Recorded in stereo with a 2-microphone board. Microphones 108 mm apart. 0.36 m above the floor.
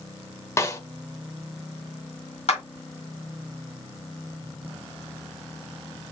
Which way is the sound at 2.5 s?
70° left (ahead or behind).